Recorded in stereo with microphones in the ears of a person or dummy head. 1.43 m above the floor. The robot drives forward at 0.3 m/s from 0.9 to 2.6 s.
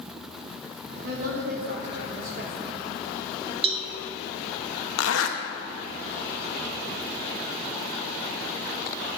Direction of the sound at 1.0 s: 60° right (ahead or behind).